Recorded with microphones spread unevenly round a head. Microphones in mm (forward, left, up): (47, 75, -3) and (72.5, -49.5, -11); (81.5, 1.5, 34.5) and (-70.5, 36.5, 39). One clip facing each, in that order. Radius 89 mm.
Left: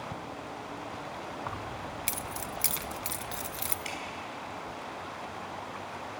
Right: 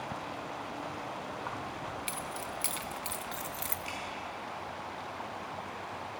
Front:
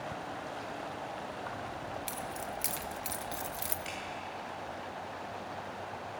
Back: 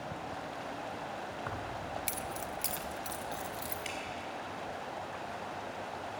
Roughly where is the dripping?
Left.